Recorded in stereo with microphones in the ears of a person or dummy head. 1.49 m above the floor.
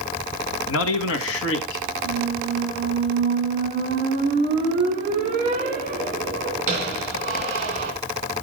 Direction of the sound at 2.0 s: 45° right (ahead or behind).